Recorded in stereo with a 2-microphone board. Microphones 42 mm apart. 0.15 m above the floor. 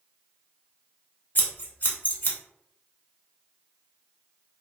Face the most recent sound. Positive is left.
turn(degrees=40)  # may be behind; listen again after turning